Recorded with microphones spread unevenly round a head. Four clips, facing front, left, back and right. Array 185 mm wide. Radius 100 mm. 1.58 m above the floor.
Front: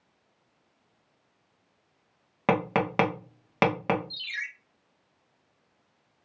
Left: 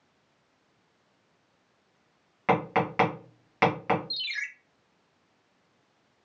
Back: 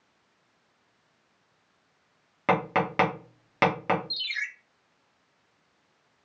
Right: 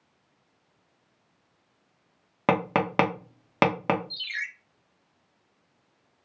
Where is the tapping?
70° right, 1.0 m.